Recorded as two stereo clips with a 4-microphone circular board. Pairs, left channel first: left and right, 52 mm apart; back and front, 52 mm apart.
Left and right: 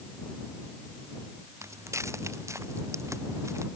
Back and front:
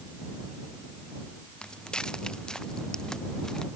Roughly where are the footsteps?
Right.